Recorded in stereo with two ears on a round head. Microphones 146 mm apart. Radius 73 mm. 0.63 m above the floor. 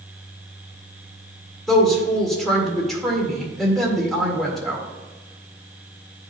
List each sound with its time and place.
1.7 s a woman speaking: centre (ahead or behind), 1.8 m